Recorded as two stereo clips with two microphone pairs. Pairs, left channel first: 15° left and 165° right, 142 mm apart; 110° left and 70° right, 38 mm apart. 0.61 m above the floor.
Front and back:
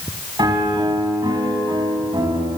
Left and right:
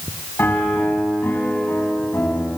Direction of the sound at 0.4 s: 135° left.